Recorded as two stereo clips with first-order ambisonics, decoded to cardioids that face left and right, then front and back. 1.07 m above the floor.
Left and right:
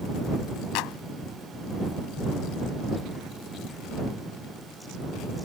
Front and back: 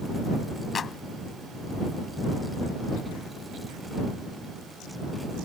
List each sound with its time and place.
0.8 s a clap: 70° left